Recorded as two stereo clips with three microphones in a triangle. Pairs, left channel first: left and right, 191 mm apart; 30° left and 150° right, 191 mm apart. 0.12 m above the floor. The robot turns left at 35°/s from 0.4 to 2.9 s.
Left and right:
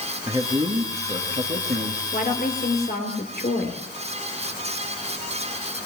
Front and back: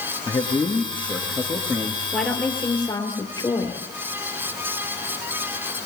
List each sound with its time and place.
0.3 s a man speaking: 30° right, 2.0 m; by 2.0 s 85° right, 2.0 m
2.1 s a woman speaking: 120° left, 3 m; by 3.8 s 95° left, 3 m